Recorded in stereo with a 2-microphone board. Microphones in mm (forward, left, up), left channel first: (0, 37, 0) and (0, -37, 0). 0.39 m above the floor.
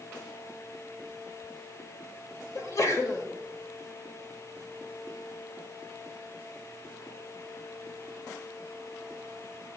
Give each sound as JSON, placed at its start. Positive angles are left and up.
{"t": 2.5, "sound": "a sneeze", "side_deg": 45, "distance_m": 1.5}